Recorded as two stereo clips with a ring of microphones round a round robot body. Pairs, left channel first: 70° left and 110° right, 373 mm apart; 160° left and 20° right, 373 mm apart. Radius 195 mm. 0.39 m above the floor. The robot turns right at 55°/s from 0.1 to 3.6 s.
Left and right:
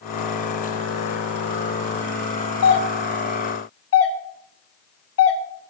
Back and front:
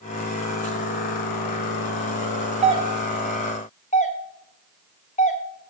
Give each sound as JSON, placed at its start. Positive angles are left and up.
{"t": 2.6, "sound": "a doorbell", "azimuth_deg": 40, "distance_m": 1.5}